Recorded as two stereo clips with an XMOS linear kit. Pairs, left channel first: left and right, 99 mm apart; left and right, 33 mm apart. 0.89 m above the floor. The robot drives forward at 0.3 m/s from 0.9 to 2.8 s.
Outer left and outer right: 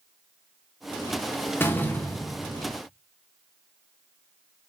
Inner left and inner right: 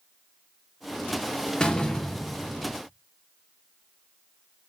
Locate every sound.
1.6 s a door slam: 20° left (ahead or behind), 0.5 m; by 2.8 s 15° left (ahead or behind), 0.8 m